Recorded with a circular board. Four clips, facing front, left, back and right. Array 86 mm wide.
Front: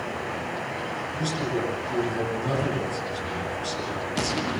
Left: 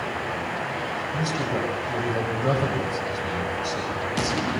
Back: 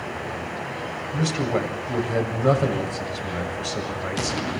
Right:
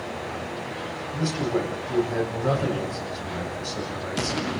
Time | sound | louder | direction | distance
1.1 | a man speaking | right 3 dB, back 5 dB | straight behind | 7 m